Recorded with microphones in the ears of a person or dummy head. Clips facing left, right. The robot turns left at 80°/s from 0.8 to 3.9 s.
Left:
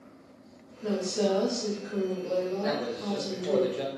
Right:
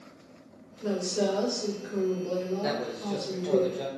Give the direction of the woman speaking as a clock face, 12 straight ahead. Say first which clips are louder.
Even; 3 o'clock.